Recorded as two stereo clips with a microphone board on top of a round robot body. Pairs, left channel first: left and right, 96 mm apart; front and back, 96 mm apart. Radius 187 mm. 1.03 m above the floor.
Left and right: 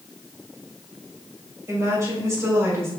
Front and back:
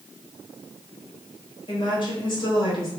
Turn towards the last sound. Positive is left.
turn(degrees=-30)